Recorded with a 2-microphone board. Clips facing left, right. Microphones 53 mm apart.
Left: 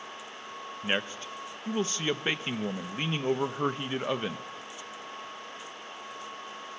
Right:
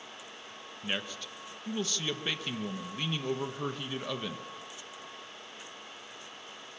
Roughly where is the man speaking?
Left.